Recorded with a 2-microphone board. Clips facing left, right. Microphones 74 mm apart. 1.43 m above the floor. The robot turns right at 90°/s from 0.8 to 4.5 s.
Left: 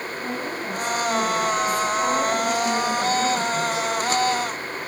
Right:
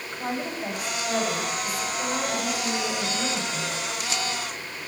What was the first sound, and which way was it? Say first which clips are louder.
A woman speaking: right 2 dB; 60° right.